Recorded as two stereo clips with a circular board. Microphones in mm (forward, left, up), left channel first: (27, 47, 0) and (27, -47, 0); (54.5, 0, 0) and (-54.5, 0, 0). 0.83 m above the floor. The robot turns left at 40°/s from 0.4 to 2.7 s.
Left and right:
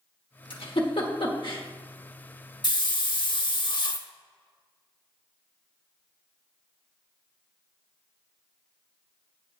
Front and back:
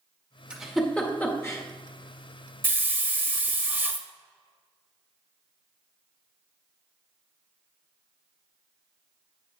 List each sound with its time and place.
0.5 s a giggle: 100° left, 1.5 m; by 1.6 s 55° left, 1.5 m
2.6 s a hiss: 115° left, 0.9 m; by 4.1 s 110° left, 0.9 m